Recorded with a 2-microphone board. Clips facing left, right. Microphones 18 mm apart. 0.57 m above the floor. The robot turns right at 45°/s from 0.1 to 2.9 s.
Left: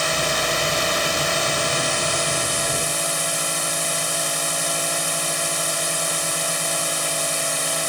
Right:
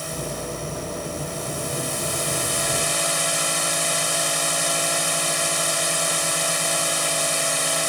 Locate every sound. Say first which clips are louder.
0.0 s a drone: left 9 dB; 55° left; by 7.9 s 175° right